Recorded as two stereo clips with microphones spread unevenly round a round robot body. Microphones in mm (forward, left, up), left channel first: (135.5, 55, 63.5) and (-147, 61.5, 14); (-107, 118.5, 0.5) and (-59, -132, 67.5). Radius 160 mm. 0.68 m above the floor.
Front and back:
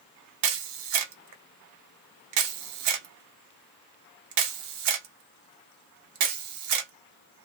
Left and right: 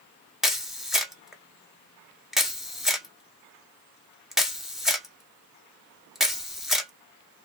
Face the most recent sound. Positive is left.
turn(degrees=-170)